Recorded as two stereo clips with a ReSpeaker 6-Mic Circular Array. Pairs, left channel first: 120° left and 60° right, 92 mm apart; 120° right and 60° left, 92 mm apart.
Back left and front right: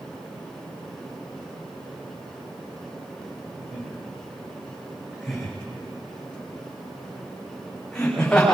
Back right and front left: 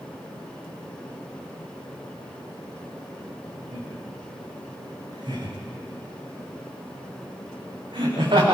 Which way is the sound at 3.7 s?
15° left.